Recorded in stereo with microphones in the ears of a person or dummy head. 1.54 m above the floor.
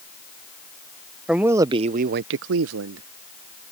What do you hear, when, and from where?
1.3 s a man speaking: 5° right (ahead or behind); by 3.1 s 75° right (ahead or behind)